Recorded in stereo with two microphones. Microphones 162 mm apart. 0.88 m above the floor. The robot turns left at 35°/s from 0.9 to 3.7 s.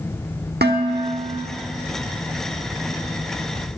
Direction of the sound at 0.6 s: 85° right.